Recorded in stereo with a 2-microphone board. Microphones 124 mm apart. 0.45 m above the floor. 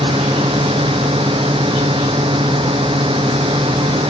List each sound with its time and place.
0.0 s a drone: 45° right (ahead or behind)